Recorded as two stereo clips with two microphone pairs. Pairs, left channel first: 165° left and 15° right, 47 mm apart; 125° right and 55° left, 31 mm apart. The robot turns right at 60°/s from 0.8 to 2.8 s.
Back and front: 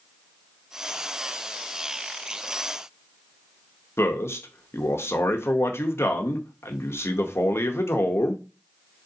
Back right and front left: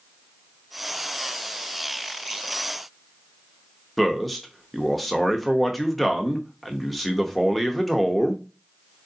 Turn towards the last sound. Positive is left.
turn(degrees=145)